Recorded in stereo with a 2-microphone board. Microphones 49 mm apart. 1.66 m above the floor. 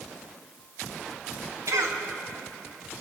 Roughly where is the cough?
Right.